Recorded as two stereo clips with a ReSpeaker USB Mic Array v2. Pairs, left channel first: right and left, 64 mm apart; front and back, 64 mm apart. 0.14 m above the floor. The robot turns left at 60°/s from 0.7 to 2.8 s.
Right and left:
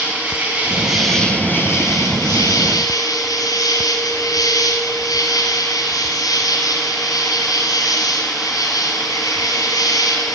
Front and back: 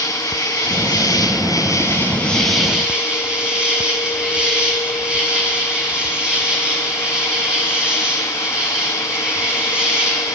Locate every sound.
0.0 s an insect: 20° left, 7.5 m; by 10.4 s 105° right, 7.5 m